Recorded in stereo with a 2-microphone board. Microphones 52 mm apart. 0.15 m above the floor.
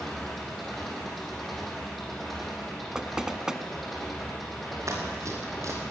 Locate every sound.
0.0 s an engine running: centre (ahead or behind), 5 m
3.0 s knocking: 15° right (ahead or behind), 0.9 m
4.9 s running footsteps: 65° right (ahead or behind), 6.5 m